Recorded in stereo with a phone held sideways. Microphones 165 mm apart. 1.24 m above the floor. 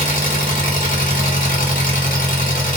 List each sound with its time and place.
0.0 s an engine running: 55° left (ahead or behind), 0.8 m